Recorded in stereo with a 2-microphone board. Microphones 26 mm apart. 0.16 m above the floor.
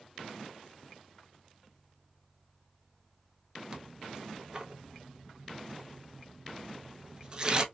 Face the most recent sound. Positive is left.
turn(degrees=-30)  # may be behind; listen again after turning